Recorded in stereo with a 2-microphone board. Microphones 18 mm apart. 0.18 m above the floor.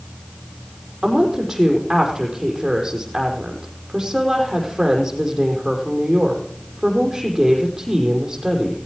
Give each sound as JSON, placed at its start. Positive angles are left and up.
{"t": 1.0, "sound": "a woman speaking", "side_deg": -20, "distance_m": 5.5}